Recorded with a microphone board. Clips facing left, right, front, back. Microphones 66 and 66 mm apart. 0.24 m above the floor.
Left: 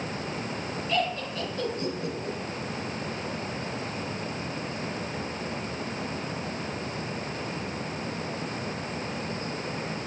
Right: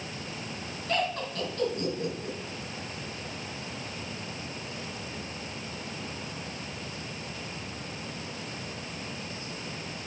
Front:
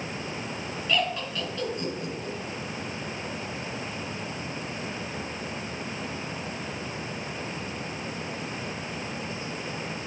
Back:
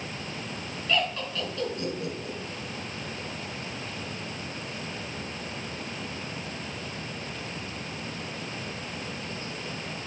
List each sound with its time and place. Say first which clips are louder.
0.9 s laughter: left 1 dB, even; 80° right, 3.5 m